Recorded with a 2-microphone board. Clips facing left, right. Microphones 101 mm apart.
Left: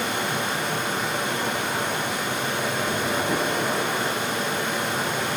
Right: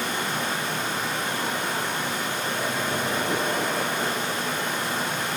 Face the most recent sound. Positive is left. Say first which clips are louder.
# left 2 dB
turn(degrees=65)  # may be behind; listen again after turning